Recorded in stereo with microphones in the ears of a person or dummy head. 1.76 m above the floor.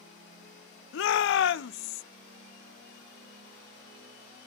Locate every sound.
0.9 s a shout: 65° left (ahead or behind), 0.6 m